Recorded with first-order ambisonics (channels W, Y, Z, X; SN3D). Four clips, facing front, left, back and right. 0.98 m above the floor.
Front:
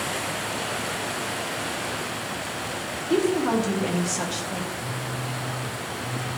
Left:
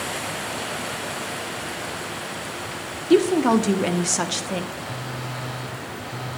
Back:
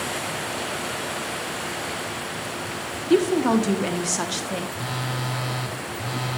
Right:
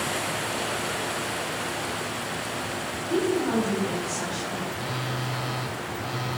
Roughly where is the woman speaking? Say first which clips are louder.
Left 8 dB, back 3 dB; left.